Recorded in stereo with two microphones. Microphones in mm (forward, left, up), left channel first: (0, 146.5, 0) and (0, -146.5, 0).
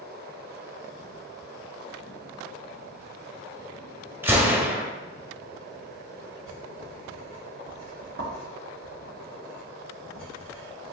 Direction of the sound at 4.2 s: 10° right (ahead or behind).